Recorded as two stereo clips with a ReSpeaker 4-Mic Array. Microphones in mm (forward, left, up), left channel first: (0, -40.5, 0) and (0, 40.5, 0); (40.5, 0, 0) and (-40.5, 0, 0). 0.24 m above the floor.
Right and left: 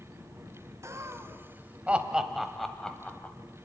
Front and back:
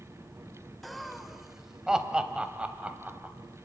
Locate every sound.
0.8 s laughter: 90° left, 1.6 m; by 3.4 s 135° right, 1.4 m